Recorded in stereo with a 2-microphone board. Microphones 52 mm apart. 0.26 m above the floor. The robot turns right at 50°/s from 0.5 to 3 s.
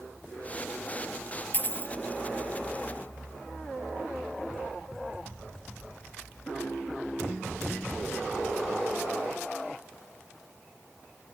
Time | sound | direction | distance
1.5 | a dropped coin | 35° left (ahead or behind) | ?